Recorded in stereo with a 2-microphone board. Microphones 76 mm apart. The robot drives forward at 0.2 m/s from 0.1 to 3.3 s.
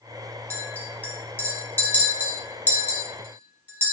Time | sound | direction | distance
0.5 | a clink | 25° left (ahead or behind) | 0.9 m